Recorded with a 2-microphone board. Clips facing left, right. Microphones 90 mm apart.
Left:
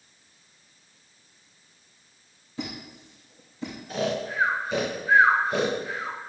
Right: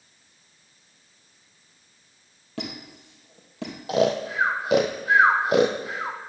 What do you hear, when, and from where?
2.6 s a squeak: 65° right (ahead or behind), 3 m
3.9 s snoring: 75° right (ahead or behind), 1.3 m